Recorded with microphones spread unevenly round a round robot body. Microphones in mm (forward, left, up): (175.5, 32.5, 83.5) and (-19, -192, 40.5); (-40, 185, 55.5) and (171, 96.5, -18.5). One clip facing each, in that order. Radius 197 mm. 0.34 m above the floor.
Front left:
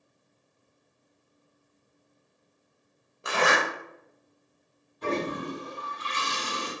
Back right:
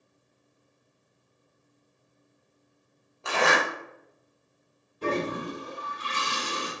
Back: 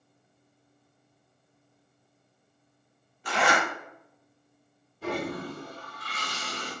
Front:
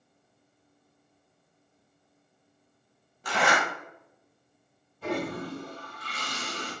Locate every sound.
3.2 s a zipper: 25° right, 1.5 m
5.0 s a toilet flushing: 105° right, 1.6 m